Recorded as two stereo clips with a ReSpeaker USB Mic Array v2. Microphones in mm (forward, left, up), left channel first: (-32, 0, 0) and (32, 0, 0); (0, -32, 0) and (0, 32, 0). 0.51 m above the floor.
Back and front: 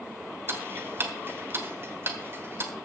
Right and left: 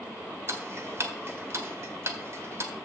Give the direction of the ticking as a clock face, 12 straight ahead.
10 o'clock.